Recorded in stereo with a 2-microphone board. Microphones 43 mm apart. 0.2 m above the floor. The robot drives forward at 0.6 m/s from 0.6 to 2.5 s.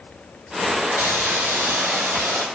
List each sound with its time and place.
1.0 s a hiss: 70° right (ahead or behind), 1.8 m; by 2.5 s 80° right, 1.7 m